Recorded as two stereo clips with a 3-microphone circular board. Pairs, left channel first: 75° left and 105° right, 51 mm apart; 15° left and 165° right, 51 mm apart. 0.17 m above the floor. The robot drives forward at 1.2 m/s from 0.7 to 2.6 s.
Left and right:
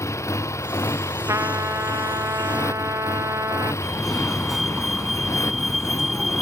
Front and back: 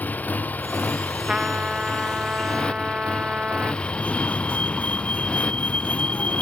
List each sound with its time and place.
0.0 s a motorcycle: 70° left; by 6.4 s 85° left
1.3 s a trumpet: 90° right; by 3.7 s 100° right
3.8 s a fire alarm: 20° right